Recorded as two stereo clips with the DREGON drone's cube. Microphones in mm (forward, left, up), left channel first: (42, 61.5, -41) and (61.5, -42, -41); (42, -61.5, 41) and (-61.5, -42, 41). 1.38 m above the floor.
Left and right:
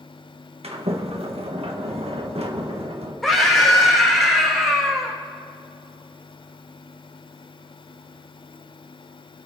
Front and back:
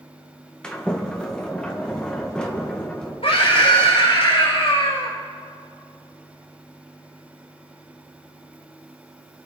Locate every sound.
0.6 s a sliding door: 95° right, 1.6 m
3.2 s a scream: 10° left, 4.5 m